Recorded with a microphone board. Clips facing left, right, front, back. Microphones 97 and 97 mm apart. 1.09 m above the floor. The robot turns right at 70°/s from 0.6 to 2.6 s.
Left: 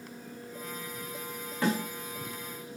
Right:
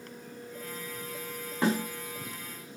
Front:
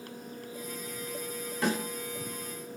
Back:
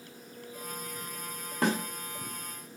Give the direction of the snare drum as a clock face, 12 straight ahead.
5 o'clock.